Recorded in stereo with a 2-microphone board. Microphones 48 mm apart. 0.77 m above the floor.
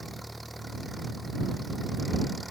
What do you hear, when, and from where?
0.0 s an engine running: centre (ahead or behind)